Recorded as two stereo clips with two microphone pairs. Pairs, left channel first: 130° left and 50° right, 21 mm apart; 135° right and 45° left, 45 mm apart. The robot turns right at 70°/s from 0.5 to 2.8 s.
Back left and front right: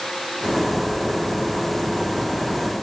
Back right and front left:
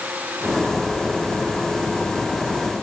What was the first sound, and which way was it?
Only background noise.